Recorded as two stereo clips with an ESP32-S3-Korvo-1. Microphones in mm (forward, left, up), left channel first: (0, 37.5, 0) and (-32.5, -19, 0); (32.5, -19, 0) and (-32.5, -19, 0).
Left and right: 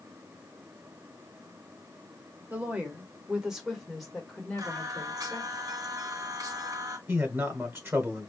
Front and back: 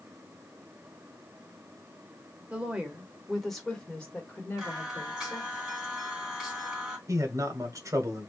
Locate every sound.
2.5 s a woman speaking: 135° right, 1.3 m; by 5.6 s 5° left, 1.6 m
4.6 s singing: 100° right, 2 m
7.1 s a man speaking: 165° right, 1.3 m